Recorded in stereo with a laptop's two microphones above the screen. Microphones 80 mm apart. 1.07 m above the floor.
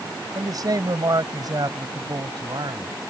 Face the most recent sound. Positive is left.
turn(degrees=-55)  # may be behind; listen again after turning